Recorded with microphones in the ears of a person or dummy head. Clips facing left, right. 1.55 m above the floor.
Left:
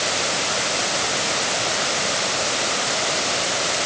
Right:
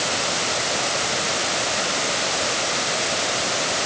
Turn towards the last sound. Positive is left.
No sound to turn to.